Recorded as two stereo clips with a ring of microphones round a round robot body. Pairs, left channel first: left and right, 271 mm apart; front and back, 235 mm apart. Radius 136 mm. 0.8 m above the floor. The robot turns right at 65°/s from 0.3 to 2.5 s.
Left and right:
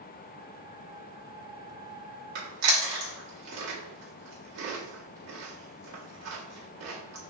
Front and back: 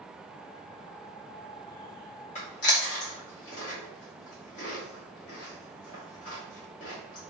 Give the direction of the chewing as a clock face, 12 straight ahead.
2 o'clock.